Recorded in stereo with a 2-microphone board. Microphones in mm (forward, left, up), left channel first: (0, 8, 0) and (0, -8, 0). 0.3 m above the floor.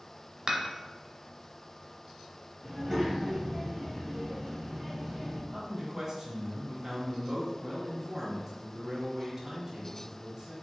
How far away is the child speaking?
About 1.1 m.